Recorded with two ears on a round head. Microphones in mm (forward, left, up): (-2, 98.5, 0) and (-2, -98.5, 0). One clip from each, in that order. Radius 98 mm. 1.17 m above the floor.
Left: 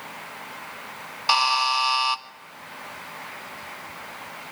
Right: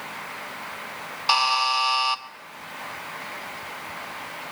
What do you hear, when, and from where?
1.3 s a buzzer: 5° left (ahead or behind), 0.6 m